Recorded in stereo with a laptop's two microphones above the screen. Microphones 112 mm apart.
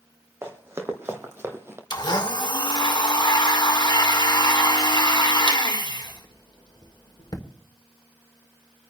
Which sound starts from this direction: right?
Running footsteps, at 0.4 s.